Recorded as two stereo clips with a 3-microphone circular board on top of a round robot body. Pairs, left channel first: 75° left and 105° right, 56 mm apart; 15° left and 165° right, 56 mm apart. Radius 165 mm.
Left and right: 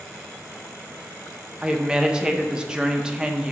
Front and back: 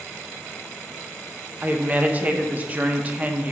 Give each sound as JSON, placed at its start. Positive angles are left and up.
{"t": 1.6, "sound": "a woman speaking", "azimuth_deg": -165, "distance_m": 0.5}